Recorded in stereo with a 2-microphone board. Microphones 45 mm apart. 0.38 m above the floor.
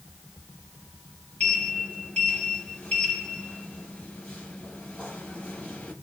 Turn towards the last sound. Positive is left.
turn(degrees=35)  # may be behind; listen again after turning